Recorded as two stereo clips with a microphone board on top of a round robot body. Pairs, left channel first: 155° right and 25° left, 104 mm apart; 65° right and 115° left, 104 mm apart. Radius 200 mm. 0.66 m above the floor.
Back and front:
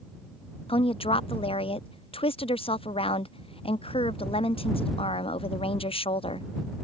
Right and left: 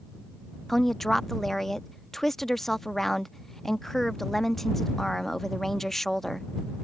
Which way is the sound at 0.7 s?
155° right.